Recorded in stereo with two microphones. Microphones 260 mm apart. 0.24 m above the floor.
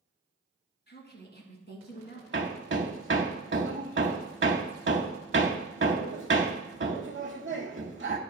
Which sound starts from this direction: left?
A woman speaking, at 0.9 s.